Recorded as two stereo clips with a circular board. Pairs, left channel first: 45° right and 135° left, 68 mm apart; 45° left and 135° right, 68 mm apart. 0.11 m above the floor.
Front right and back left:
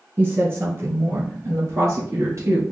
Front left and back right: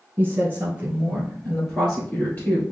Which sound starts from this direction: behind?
A woman speaking, at 0.2 s.